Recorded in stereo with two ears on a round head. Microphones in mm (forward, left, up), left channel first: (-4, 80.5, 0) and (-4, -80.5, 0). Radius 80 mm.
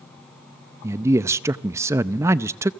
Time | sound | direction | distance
0.8 | a man speaking | 15° right (ahead or behind) | 0.6 m